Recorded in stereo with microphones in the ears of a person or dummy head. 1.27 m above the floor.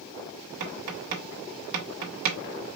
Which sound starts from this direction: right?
Tapping, at 0.6 s.